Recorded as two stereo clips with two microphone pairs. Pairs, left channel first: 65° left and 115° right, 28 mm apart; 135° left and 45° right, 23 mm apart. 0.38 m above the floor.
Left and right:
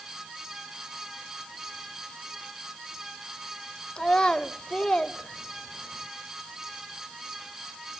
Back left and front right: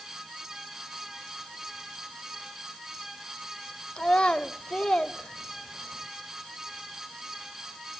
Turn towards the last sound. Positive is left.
turn(degrees=120)